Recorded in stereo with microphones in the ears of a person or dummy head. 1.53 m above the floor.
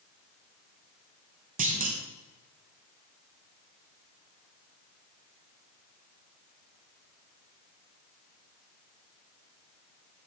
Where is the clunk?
45° right (ahead or behind), 1.8 m.